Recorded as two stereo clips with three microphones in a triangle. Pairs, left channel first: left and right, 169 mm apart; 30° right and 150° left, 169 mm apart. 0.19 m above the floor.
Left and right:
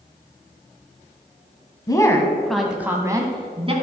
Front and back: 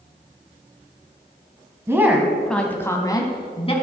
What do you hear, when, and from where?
1.9 s a woman speaking: 100° left, 1.2 m; by 3.7 s 60° right, 1.4 m